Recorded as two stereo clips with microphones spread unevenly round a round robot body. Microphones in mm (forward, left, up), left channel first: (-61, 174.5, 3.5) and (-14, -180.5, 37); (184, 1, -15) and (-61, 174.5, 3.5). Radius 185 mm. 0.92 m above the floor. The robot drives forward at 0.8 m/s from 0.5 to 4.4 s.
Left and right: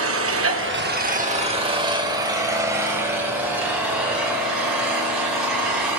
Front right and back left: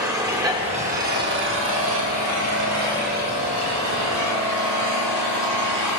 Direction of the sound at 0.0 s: 135° right.